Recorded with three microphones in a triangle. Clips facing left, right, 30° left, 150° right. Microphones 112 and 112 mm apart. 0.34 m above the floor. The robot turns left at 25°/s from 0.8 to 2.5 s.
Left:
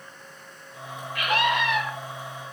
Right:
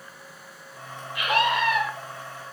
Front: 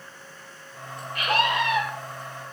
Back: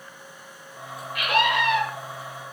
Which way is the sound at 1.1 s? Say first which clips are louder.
Right 1 dB, back 1 dB; 20° right.